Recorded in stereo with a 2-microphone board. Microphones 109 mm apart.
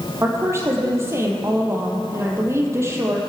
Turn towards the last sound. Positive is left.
turn(degrees=-25)  # may be behind; listen again after turning